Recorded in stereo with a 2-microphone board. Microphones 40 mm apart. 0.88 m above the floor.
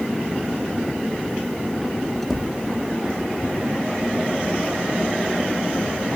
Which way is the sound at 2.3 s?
5° right (ahead or behind).